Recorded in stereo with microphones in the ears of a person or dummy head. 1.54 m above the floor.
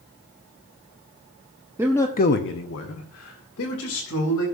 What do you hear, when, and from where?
1.8 s a man speaking: 10° right (ahead or behind), 0.8 m; by 4.5 s 75° left (ahead or behind), 3.5 m